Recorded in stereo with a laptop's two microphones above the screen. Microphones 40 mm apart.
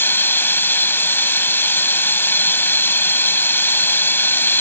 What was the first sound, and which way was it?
Running water, 75° left (ahead or behind).